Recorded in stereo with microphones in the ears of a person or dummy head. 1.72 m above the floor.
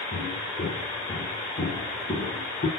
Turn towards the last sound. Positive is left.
turn(degrees=30)  # may be behind; listen again after turning